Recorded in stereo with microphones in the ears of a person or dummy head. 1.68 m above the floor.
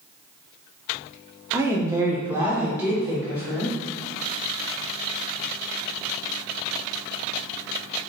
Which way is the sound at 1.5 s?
15° right (ahead or behind).